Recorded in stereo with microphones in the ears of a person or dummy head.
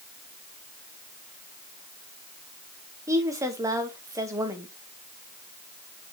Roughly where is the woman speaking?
Centre.